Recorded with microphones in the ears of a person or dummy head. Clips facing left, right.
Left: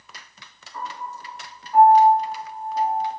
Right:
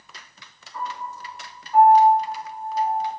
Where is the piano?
45° left (ahead or behind), 1.8 m.